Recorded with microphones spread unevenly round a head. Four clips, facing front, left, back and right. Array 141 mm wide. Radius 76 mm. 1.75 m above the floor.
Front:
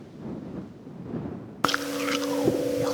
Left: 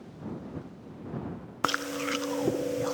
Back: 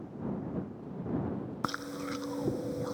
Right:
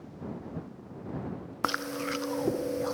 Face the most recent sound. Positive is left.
turn(degrees=-10)